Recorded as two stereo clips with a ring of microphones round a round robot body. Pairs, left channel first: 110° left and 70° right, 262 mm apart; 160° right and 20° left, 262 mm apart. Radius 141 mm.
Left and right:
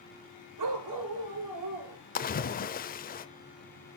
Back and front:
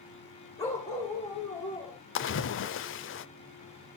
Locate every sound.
0.6 s a dog barking: 80° right, 4.5 m; by 2.0 s 75° right, 3 m
2.1 s a splash: 165° left, 0.8 m